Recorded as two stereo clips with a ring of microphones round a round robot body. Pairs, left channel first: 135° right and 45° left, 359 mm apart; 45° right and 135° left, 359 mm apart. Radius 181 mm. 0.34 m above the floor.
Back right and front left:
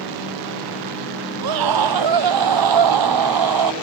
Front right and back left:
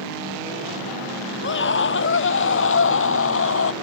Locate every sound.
1.4 s a scream: 15° left; by 3.7 s 10° left